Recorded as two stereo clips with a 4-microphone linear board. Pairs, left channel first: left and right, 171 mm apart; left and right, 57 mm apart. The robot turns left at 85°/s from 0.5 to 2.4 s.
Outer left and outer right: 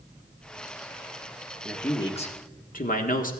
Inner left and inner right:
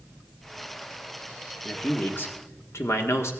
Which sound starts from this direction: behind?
A man speaking, at 1.6 s.